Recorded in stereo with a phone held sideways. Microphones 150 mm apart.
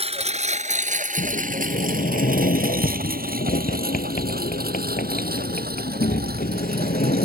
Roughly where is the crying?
No crying in this recording.